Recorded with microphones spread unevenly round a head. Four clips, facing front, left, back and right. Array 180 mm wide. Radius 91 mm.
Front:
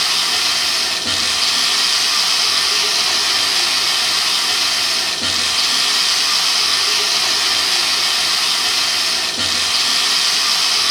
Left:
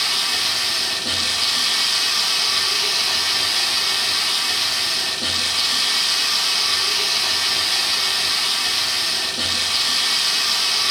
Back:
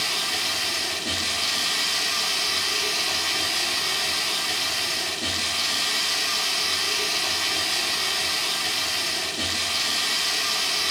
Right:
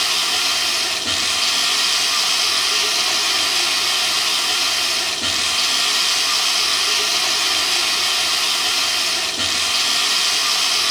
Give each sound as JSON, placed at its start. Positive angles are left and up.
{"t": 0.0, "sound": "running water", "azimuth_deg": -20, "distance_m": 0.8}